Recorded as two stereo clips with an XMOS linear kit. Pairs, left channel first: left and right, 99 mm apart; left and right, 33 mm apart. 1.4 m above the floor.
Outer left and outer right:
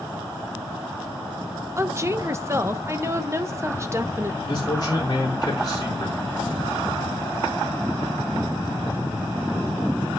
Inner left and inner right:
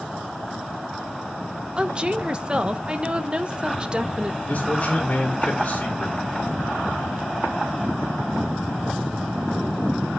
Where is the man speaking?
45° left (ahead or behind), 5 m.